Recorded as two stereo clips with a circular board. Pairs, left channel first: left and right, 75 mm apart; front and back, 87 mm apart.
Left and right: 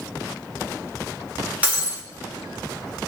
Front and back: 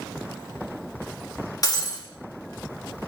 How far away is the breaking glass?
About 1.5 m.